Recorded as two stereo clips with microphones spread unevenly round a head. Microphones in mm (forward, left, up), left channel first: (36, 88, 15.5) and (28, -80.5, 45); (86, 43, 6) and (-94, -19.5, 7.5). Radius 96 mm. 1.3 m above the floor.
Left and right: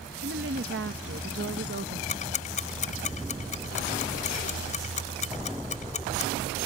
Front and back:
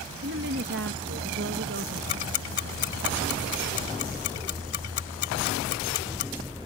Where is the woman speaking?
125° right.